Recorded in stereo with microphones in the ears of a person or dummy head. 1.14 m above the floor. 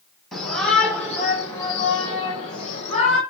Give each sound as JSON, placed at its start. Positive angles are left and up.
{"t": 0.3, "sound": "a shout", "side_deg": 0, "distance_m": 3.5}